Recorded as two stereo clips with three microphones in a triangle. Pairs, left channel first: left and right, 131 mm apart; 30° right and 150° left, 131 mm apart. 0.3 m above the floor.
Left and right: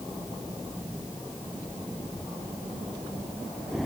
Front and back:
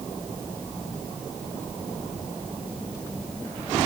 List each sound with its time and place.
Only background noise.